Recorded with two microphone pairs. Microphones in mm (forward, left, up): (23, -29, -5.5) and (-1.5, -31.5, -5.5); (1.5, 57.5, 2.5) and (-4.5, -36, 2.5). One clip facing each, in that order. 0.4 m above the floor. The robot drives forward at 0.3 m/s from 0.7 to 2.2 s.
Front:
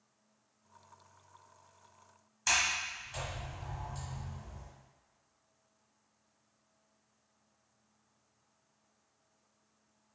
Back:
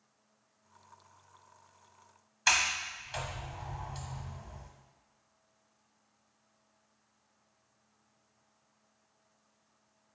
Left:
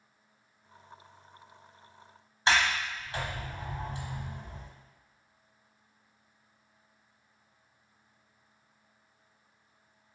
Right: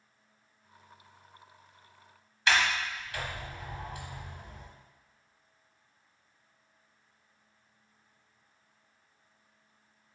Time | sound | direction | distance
2.5 | a sliding door | 150° left | 1.0 m